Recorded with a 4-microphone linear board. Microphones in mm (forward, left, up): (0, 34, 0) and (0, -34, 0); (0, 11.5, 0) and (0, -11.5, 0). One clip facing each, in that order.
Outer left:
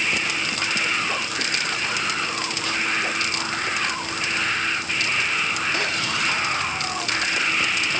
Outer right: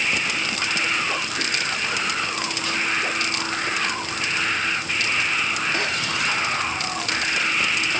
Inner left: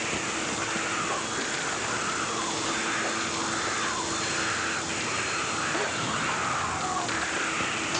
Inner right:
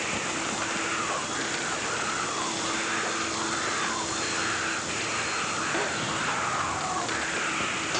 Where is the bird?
No bird in this recording.